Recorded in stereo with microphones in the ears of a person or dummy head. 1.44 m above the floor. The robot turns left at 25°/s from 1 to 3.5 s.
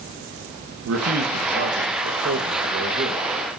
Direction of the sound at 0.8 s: 90° right.